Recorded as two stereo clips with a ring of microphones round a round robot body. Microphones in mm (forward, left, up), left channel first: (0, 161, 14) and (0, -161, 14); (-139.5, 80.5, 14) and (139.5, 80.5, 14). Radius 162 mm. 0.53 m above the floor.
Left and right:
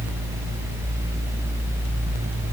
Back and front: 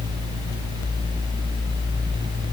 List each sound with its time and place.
Only background noise.